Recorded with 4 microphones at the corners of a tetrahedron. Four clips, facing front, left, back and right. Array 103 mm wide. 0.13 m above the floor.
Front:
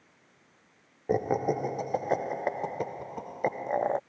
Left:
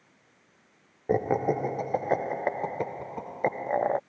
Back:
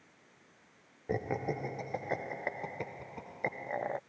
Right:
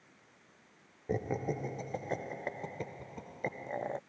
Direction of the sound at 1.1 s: 60° left.